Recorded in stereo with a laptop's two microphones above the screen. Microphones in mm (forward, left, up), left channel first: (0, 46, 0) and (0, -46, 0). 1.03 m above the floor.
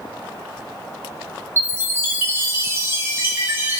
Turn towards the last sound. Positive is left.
turn(degrees=-25)  # may be behind; listen again after turning